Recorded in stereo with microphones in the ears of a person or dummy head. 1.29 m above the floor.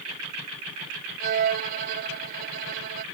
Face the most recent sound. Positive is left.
turn(degrees=-50)  # may be behind; listen again after turning